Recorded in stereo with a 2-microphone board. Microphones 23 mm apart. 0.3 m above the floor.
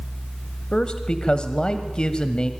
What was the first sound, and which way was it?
A man speaking, 40° left (ahead or behind).